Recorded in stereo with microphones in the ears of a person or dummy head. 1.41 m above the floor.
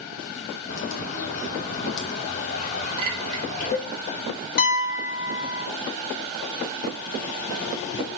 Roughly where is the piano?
Left.